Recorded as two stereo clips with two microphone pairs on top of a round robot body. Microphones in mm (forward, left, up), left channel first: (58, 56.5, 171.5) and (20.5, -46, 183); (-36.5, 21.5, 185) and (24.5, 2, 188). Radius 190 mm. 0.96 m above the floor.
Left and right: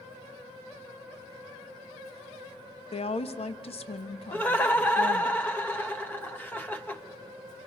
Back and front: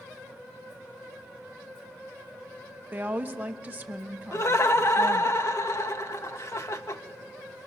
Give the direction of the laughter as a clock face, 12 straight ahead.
7 o'clock.